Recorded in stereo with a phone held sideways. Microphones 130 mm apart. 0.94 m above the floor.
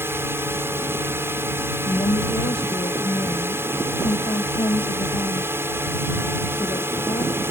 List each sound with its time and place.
0.0 s a drone: 20° right (ahead or behind)
1.9 s a woman speaking: 45° left (ahead or behind)